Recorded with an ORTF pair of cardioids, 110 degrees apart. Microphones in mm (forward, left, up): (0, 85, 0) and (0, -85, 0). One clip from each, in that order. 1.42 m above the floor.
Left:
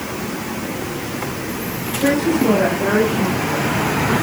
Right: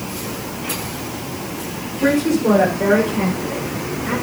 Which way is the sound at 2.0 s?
20° right.